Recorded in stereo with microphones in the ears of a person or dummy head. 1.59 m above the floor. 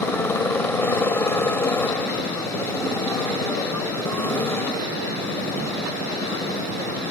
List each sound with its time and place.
0.0 s a motorcycle: 15° left (ahead or behind)